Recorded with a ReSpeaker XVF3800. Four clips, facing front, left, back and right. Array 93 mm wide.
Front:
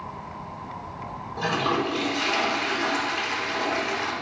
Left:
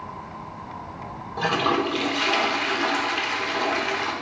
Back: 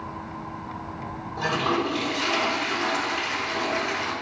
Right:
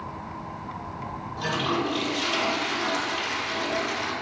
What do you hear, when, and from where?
1.4 s a toilet flushing: 90° left, 1.1 m